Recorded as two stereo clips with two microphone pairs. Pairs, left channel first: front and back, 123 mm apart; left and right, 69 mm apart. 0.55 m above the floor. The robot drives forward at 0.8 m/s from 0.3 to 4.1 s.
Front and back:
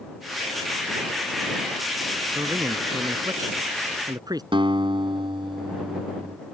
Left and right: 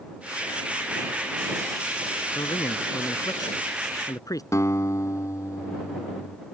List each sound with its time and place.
2.4 s a man speaking: 115° left; by 4.4 s 125° left
4.5 s a guitar: 135° left